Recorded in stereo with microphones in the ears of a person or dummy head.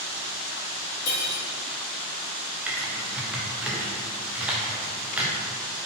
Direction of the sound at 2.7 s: 10° right (ahead or behind).